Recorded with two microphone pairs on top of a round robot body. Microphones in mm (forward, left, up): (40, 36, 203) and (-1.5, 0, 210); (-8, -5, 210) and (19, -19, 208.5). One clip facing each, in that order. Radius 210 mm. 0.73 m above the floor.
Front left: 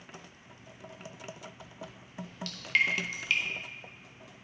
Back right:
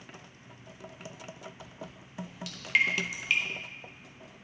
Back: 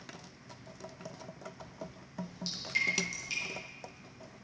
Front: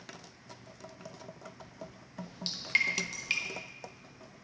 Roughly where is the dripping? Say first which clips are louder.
Even, front 1 dB; ahead right.